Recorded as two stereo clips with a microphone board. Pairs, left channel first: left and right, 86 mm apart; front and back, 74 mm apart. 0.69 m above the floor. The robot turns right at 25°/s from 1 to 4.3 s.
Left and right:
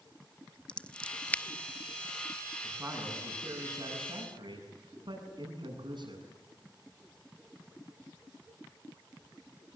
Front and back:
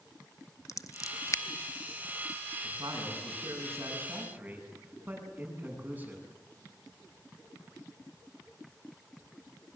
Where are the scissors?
20° left, 0.8 m; by 1.4 s 30° left, 0.8 m.